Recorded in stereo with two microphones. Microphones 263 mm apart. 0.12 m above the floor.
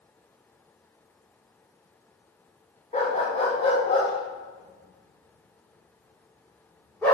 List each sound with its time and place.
2.9 s a dog barking: 25° left (ahead or behind), 3.5 m; by 7.1 s 10° left (ahead or behind), 5.5 m